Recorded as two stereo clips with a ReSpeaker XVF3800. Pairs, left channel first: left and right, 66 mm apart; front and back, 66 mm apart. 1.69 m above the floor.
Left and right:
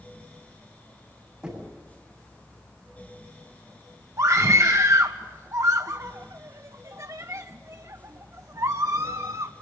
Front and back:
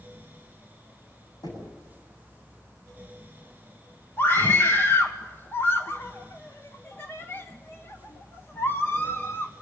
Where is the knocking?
10° right, 7.5 m.